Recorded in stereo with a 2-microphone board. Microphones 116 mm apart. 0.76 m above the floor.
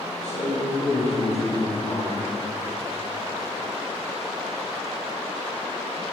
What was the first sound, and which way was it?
A man speaking, 75° left (ahead or behind).